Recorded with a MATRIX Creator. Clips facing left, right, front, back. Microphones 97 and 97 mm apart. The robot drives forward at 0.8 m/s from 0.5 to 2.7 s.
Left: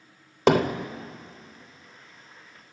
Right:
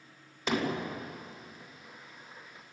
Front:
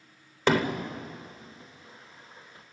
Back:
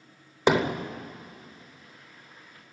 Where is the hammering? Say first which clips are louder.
Left 10 dB, back 2 dB; 110° left, 1.2 m; by 0.9 s 120° left, 1.3 m.